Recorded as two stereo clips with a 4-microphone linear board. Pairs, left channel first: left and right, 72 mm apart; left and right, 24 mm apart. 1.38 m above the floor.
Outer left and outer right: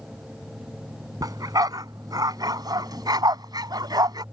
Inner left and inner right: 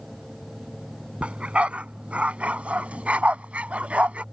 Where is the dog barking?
55° right (ahead or behind); by 4.2 s 65° right (ahead or behind).